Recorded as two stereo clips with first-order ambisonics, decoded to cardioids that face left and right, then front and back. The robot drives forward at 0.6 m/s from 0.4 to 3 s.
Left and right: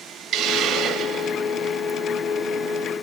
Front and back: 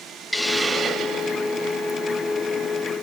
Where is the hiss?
90° right, 0.5 m; by 1.8 s 160° right, 1.0 m.